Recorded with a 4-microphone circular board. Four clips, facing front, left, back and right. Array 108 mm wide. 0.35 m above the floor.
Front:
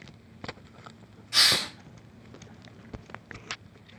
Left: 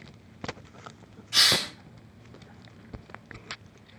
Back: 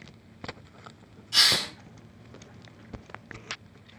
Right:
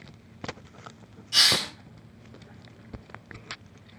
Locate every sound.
1.3 s a hiss: 30° left, 1.3 m